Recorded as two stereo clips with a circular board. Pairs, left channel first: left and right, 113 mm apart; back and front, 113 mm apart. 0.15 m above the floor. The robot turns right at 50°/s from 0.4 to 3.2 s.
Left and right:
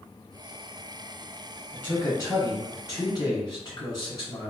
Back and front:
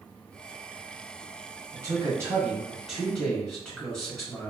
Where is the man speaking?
25° left, 1.4 m; by 4.5 s 100° left, 1.4 m.